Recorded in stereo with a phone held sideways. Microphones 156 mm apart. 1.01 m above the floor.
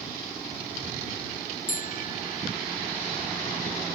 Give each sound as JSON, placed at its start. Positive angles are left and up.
{"t": 1.7, "sound": "a bicycle bell", "side_deg": 55}